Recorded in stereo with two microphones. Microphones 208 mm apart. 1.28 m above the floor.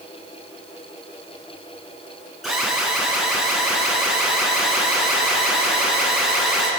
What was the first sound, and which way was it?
An alarm, centre (ahead or behind).